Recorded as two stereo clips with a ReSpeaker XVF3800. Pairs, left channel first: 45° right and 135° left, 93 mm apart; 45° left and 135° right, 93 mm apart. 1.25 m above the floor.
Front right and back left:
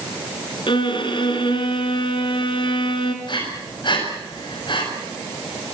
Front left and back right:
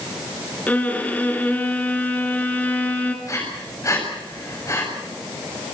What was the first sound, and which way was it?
A violin, 25° right.